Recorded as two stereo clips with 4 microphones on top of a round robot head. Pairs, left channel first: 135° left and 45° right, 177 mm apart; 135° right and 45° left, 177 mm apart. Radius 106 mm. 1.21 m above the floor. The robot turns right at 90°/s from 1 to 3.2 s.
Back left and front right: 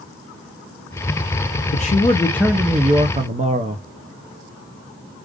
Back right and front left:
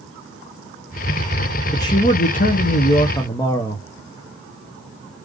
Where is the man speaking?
155° left, 0.7 m; by 3.8 s 70° right, 0.7 m.